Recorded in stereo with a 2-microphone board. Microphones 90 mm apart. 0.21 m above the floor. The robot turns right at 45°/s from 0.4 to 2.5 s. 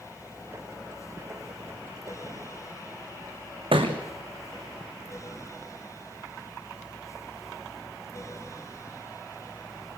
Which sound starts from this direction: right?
A thud, at 3.7 s.